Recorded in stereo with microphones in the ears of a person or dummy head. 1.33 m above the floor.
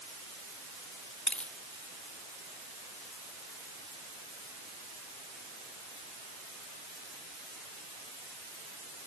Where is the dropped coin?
10° left (ahead or behind).